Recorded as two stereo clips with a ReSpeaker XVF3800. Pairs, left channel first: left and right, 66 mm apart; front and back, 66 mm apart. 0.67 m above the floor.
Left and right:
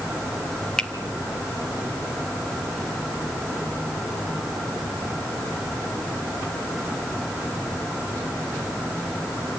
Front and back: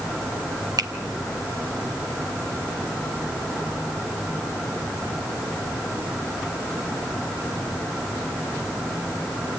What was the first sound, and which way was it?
A finger snap, 170° left.